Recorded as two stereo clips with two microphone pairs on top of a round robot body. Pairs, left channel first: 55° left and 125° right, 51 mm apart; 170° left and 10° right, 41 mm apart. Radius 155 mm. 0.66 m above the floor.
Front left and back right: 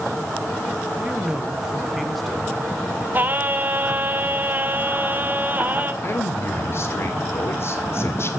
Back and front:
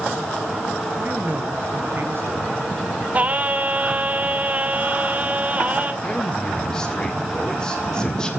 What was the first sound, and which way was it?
A man speaking, 55° right.